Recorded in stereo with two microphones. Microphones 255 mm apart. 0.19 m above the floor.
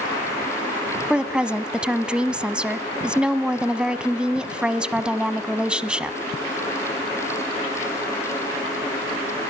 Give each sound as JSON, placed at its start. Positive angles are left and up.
{"t": 1.1, "sound": "a woman speaking", "side_deg": -5, "distance_m": 1.0}